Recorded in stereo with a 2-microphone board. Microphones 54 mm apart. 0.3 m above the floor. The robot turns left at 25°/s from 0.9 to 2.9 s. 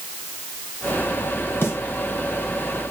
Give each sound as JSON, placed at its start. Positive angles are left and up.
{"t": 1.6, "sound": "a snare drum", "side_deg": 50, "distance_m": 3.0}